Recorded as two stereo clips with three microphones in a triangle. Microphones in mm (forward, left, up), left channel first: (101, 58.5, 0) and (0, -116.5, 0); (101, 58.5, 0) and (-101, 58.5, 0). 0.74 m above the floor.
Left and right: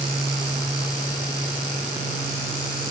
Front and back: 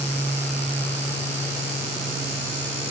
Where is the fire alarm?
I don't hear a fire alarm.